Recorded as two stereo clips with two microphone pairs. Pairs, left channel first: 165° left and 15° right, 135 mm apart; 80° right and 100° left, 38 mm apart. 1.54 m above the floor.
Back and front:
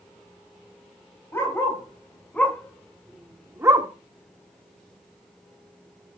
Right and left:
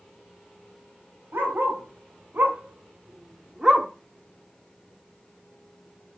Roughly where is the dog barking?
Left.